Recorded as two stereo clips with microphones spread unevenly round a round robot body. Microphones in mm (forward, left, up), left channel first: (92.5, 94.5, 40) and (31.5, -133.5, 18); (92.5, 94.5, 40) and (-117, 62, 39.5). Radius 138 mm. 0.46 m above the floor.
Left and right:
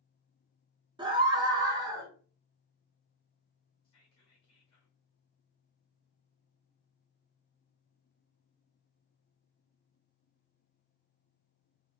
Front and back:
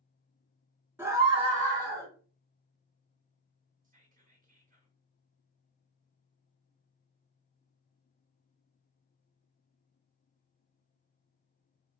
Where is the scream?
105° right, 1.1 m; by 2.1 s 170° right, 1.5 m.